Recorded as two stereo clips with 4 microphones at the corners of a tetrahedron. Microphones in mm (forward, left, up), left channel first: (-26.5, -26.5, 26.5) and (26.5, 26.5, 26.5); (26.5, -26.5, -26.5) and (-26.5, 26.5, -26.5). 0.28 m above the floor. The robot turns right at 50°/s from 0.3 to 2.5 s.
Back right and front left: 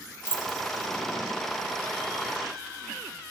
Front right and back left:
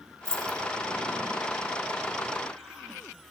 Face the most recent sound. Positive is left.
turn(degrees=-75)